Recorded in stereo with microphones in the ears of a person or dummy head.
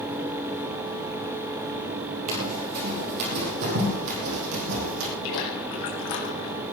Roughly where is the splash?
Left.